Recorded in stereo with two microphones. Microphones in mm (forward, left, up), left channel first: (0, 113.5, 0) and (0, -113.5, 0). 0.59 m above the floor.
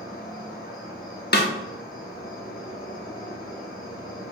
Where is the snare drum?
45° left (ahead or behind), 0.6 m.